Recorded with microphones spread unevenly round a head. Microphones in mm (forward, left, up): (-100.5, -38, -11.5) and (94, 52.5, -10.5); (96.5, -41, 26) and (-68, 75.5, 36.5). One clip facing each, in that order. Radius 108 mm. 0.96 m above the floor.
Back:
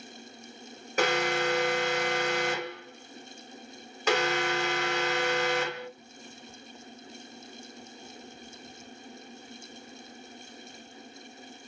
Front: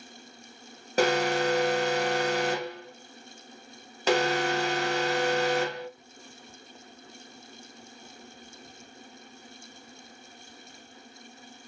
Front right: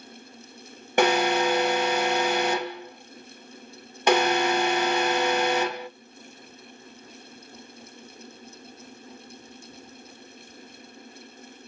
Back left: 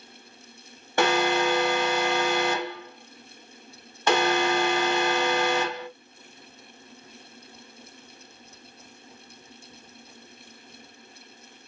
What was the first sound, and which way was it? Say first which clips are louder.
An alarm: front 3 dB, front right 1 dB; 15° left.